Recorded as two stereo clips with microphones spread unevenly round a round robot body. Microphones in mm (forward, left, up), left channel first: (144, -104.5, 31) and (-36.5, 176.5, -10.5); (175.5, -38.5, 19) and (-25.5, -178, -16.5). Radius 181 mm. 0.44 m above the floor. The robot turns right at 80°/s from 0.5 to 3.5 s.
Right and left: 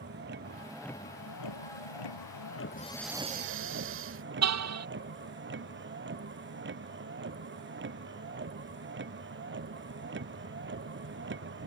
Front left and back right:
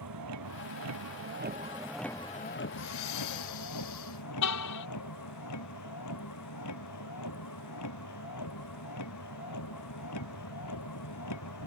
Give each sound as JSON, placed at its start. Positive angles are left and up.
{"t": 0.0, "sound": "a vehicle", "azimuth_deg": -175}
{"t": 2.7, "sound": "breathing", "azimuth_deg": 10}
{"t": 4.4, "sound": "a car horn", "azimuth_deg": 80}